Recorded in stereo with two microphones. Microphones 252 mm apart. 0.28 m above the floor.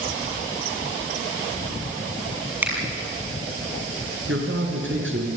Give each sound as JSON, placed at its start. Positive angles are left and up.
{"t": 2.6, "sound": "a finger snap", "side_deg": -10, "distance_m": 6.0}
{"t": 4.3, "sound": "a man speaking", "side_deg": -55, "distance_m": 4.5}